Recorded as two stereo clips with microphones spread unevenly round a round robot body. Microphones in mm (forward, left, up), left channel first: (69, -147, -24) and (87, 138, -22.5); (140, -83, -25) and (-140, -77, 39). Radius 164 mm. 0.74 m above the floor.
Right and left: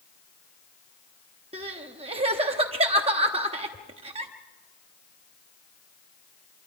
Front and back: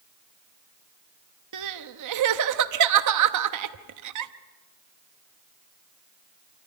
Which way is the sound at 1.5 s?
155° left.